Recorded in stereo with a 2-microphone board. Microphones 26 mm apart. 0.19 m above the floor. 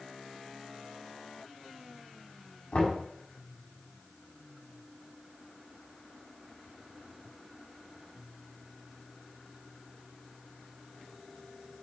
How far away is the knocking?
About 6.5 m.